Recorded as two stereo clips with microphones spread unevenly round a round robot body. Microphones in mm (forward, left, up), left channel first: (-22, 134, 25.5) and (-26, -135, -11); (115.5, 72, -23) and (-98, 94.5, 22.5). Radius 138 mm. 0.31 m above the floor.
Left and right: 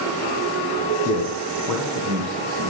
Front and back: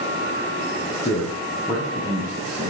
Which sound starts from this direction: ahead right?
A man speaking, at 0.9 s.